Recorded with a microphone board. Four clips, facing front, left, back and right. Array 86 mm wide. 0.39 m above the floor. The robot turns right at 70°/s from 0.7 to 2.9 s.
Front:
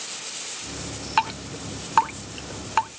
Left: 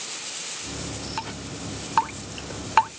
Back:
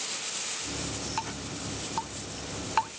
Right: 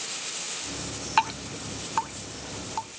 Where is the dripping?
35° right; by 2.9 s 85° left.